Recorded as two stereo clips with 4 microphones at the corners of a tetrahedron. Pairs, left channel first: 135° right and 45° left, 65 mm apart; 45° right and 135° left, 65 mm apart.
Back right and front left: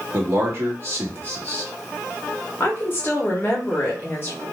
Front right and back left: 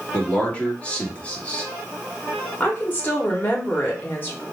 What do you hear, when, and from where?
0.1 s a man speaking: 15° left, 1.2 m
2.6 s a woman speaking: 95° right, 1.2 m